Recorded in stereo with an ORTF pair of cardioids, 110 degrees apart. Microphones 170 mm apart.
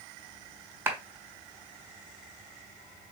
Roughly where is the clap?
Ahead.